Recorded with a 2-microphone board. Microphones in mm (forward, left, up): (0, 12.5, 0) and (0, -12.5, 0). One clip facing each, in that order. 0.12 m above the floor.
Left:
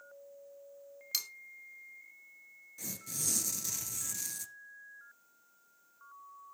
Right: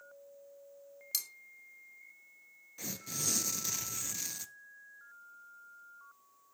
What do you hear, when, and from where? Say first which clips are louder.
1.1 s cutlery clinking: left 3 dB; 20° left (ahead or behind), 0.7 m
2.8 s tearing paper: right 2 dB; 15° right (ahead or behind), 0.7 m